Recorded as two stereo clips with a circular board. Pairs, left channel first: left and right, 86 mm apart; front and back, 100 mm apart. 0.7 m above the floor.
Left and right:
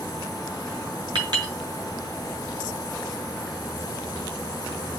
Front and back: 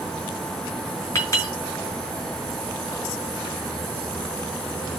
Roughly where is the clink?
Ahead right.